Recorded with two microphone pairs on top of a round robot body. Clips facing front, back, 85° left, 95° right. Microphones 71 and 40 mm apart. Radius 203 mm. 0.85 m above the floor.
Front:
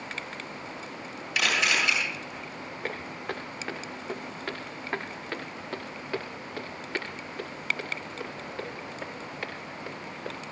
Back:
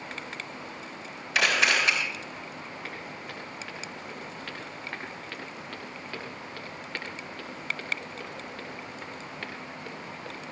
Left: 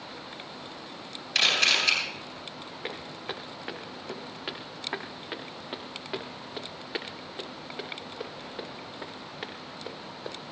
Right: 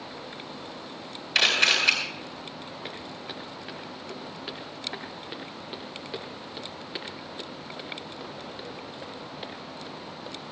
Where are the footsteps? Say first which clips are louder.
Front 4 dB, left 5 dB; 50° left, 4 m; by 10.5 s 80° left, 9 m.